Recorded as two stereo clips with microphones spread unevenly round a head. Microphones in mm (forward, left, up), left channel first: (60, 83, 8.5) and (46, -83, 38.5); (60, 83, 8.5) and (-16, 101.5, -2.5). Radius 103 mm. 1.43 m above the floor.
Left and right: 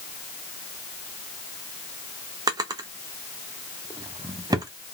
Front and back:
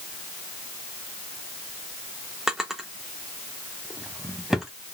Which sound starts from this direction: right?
A drawer, at 2.5 s.